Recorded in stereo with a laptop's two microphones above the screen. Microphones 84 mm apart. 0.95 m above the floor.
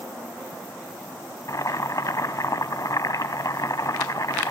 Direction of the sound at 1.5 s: 50° left (ahead or behind).